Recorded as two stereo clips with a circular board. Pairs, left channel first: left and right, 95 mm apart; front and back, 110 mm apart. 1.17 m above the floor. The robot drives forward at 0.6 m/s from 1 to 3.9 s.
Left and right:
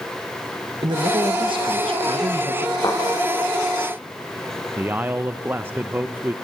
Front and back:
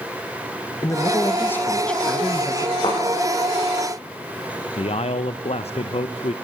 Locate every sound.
0.8 s a man speaking: 60° right, 1.6 m; by 2.7 s 100° right, 1.4 m
2.8 s a thud: 40° left, 9.5 m
4.8 s a man speaking: 20° right, 0.6 m